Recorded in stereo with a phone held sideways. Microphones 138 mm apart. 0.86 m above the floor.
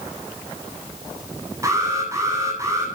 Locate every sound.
1.6 s an alarm: 25° right (ahead or behind), 9 m